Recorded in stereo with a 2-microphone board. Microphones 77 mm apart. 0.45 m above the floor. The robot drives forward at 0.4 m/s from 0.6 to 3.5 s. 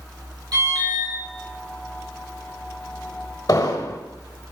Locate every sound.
0.5 s an alarm: 60° right (ahead or behind), 3 m; by 1.1 s 55° right (ahead or behind), 3 m
3.5 s an explosion: 50° left (ahead or behind), 0.6 m